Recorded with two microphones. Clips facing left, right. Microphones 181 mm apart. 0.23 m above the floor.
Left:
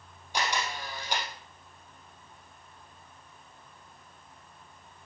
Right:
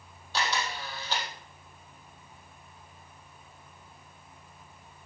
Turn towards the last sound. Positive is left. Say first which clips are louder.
# even
turn(degrees=15)  # may be behind; listen again after turning